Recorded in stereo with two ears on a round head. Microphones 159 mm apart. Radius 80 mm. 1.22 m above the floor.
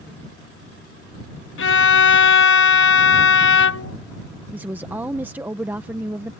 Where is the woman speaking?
10° right (ahead or behind).